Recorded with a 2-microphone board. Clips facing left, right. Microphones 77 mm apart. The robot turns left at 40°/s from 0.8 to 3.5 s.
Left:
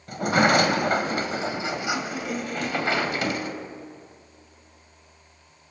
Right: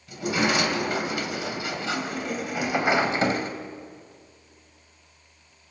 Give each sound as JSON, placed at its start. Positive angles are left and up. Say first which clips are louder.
{"t": 0.1, "sound": "a sliding door", "louder": "left 5 dB", "azimuth_deg": 65, "distance_m": 2.5}